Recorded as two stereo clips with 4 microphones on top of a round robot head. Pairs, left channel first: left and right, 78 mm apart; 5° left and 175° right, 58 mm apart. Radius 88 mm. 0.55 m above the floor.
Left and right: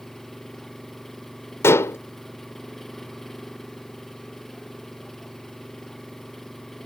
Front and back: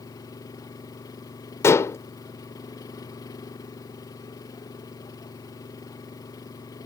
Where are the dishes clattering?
35° left.